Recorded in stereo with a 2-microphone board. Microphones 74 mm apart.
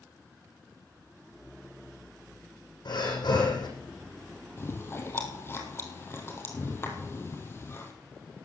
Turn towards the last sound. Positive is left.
turn(degrees=35)  # may be behind; listen again after turning